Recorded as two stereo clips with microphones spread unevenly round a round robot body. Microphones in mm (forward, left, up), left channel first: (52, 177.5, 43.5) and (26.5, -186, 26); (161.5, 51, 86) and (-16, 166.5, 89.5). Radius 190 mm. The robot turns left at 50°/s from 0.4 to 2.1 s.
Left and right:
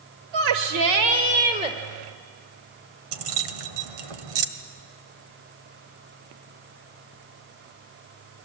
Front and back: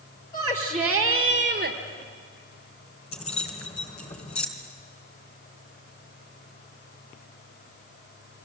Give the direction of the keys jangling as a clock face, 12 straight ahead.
3 o'clock.